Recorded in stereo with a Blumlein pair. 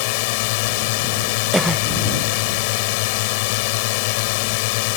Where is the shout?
No shout in this recording.